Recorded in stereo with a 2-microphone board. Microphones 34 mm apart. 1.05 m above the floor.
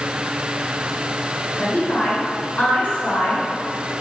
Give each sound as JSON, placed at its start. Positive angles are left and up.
{"t": 1.6, "sound": "a woman speaking", "side_deg": 45, "distance_m": 5.0}